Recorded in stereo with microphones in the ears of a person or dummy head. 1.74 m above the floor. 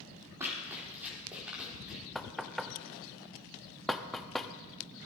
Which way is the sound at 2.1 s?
Centre (ahead or behind).